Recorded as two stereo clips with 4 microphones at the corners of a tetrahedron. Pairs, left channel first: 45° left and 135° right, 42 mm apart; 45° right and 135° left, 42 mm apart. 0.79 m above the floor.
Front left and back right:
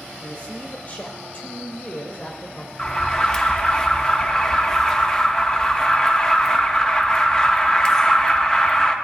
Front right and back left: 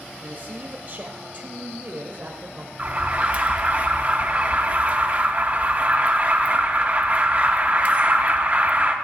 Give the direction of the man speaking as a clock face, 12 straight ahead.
9 o'clock.